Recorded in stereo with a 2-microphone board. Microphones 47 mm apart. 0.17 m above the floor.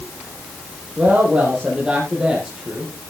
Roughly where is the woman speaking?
Right.